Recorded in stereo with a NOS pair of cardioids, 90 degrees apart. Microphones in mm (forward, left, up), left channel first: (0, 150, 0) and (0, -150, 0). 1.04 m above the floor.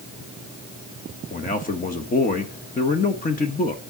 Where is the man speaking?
30° left, 1.1 m.